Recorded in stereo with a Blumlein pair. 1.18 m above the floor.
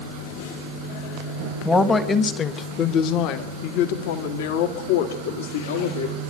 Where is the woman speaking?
5° left, 1.4 m; by 6.2 s 65° left, 3 m.